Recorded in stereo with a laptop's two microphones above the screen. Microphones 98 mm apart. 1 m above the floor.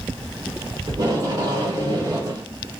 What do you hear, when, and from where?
0.9 s tape being pulled: 40° right (ahead or behind), 1.5 m